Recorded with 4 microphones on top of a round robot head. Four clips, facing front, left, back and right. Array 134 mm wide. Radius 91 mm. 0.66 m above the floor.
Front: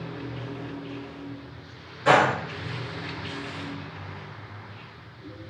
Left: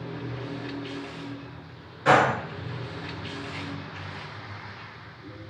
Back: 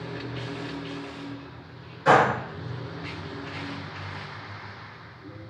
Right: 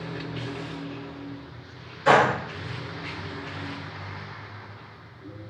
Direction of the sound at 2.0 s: 110° left.